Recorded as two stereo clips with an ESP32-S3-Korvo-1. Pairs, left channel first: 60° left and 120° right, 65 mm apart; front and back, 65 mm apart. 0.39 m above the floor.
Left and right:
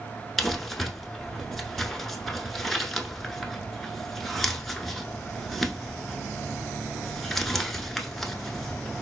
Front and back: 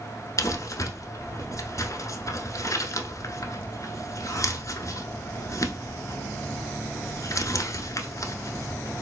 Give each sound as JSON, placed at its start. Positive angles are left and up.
{"t": 0.4, "sound": "crumpling", "azimuth_deg": -25, "distance_m": 0.7}